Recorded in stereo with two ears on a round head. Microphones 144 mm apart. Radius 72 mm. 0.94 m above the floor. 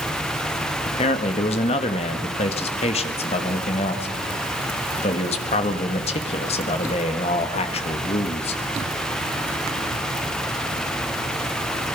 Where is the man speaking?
40° left (ahead or behind), 1.7 m.